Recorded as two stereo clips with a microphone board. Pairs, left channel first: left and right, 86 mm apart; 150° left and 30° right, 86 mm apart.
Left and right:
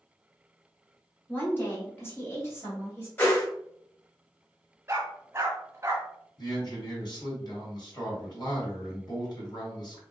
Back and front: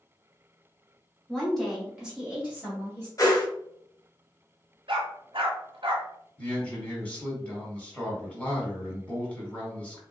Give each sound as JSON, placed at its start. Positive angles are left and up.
{"t": 1.3, "sound": "a woman speaking", "azimuth_deg": 95, "distance_m": 1.3}
{"t": 3.2, "sound": "a whoosh", "azimuth_deg": 140, "distance_m": 1.1}
{"t": 4.9, "sound": "a dog barking", "azimuth_deg": -30, "distance_m": 0.9}
{"t": 6.4, "sound": "a man speaking", "azimuth_deg": 80, "distance_m": 1.6}